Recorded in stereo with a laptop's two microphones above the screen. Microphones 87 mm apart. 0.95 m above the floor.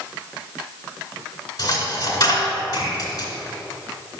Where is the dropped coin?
45° left (ahead or behind), 1.8 m.